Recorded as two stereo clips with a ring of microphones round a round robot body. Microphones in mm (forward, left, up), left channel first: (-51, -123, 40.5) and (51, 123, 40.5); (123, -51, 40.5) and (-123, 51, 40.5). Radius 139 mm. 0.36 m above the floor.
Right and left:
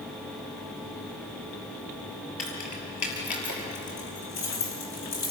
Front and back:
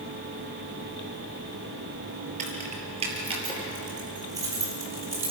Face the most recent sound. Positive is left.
turn(degrees=-120)